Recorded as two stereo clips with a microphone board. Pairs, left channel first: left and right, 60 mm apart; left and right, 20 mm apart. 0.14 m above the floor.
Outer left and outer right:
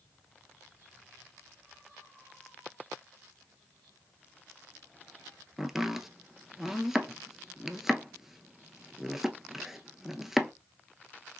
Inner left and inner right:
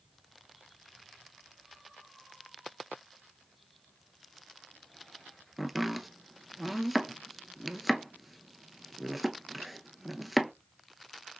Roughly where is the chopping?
Centre.